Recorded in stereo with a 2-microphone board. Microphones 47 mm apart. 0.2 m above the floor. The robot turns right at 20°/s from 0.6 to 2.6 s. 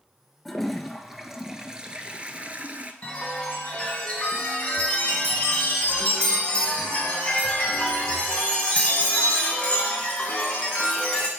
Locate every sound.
0.5 s a toilet flushing: 175° left, 0.5 m; by 2.9 s 145° right, 0.5 m
3.0 s a chime: 20° left (ahead or behind), 1.9 m